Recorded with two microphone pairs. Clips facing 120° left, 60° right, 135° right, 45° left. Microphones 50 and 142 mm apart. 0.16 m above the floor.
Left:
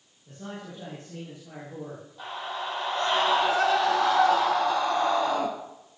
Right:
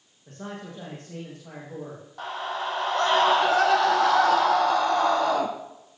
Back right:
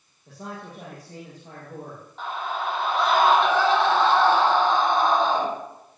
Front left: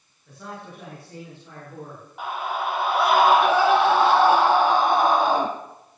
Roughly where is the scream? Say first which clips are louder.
Right 4 dB, front left 2 dB; ahead right.